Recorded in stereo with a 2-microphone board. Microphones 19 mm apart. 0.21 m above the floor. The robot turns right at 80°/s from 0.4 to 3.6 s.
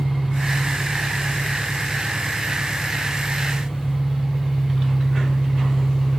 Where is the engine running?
65° right, 5 m; by 6.2 s 170° right, 5 m.